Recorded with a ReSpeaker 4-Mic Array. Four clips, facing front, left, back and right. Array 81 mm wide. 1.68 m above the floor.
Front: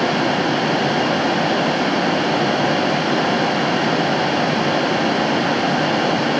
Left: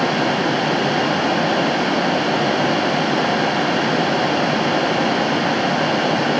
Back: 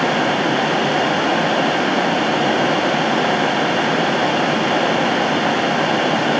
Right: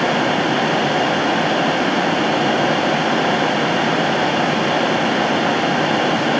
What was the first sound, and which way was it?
Only background noise.